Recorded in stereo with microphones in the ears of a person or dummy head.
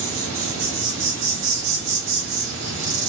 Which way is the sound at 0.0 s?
60° right (ahead or behind).